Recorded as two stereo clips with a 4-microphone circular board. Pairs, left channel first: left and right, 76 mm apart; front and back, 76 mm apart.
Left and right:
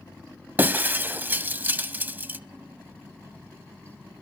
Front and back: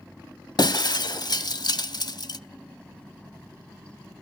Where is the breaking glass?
25° right, 0.6 m.